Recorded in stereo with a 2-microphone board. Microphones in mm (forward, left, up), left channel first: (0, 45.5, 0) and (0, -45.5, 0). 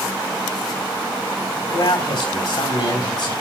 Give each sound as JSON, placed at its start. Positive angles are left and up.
{"t": 1.7, "sound": "a man speaking", "side_deg": 65, "distance_m": 3.0}